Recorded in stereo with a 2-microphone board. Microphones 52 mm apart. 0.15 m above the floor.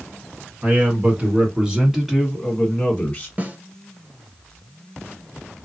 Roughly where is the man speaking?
Right.